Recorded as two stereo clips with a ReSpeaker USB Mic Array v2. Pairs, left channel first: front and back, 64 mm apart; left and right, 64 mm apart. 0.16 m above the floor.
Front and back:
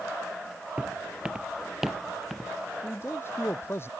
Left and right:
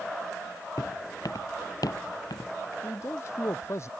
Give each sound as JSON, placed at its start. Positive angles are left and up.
{"t": 0.8, "sound": "footsteps", "azimuth_deg": 110}
{"t": 2.8, "sound": "a man speaking", "azimuth_deg": 50}